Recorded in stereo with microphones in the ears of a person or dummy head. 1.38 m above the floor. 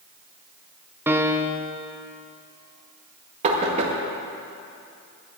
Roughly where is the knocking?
Right.